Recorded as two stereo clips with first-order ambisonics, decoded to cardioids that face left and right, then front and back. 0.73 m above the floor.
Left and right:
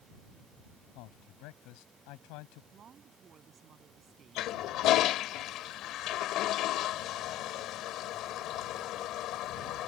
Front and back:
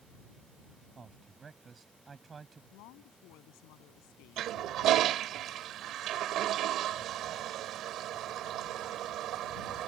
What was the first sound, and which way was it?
A man speaking, 110° left.